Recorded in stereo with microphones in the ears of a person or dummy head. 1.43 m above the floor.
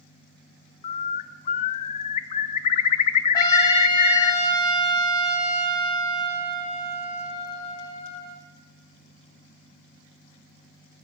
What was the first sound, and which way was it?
A bird, 45° left (ahead or behind).